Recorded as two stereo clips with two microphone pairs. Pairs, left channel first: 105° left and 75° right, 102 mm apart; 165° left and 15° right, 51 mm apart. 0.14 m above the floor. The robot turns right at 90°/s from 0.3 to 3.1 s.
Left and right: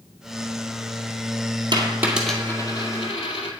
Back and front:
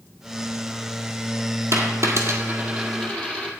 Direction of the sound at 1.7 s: 35° right.